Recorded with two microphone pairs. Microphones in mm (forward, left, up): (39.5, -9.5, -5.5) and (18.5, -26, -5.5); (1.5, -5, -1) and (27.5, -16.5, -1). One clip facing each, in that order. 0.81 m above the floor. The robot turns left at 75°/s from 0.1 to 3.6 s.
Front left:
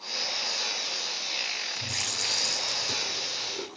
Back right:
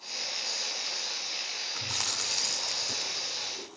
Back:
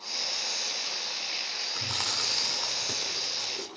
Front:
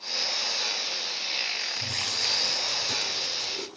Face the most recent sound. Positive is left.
turn(degrees=50)